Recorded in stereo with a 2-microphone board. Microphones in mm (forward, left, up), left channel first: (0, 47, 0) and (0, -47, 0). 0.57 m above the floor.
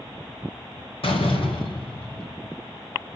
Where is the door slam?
75° left (ahead or behind), 2 m.